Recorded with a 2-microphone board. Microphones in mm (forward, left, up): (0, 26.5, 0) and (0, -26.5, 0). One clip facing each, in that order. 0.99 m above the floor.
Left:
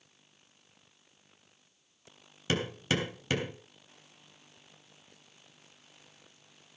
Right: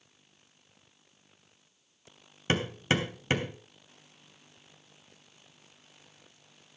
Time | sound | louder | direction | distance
2.5 | hammering | right 2 dB | 30° right (ahead or behind) | 3 m